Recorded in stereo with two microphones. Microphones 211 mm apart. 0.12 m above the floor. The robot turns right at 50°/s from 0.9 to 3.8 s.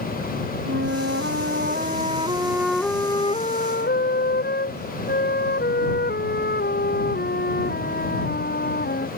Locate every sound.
0.7 s a flute: 90° right; by 9.1 s 55° left